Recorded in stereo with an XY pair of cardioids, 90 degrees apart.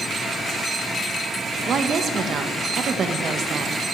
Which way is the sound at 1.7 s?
60° right.